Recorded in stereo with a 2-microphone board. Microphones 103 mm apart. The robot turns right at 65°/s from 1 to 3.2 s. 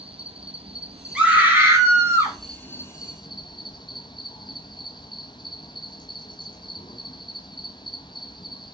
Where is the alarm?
No alarm in this recording.